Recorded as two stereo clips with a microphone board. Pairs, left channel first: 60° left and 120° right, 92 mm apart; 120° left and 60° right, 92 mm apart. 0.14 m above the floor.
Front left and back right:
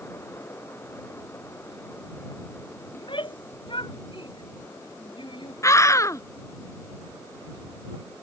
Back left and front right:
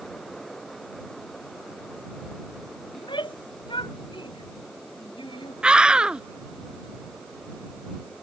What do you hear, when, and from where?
2.9 s a shout: 90° left
5.6 s a scream: 15° left